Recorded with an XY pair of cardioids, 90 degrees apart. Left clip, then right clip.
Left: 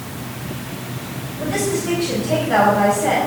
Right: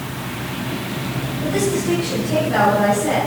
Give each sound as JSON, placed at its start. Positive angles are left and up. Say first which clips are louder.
{"t": 1.4, "sound": "a woman speaking", "louder": "even", "azimuth_deg": 65, "distance_m": 6.5}